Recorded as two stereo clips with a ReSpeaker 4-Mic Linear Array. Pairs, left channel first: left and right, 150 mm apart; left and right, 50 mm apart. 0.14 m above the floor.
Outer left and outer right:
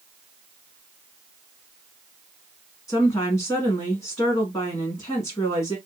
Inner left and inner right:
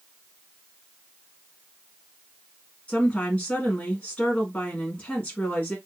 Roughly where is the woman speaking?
Centre.